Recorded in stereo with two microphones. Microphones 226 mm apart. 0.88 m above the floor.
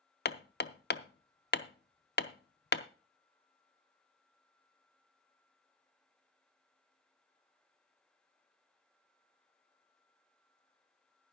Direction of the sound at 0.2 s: 50° left (ahead or behind).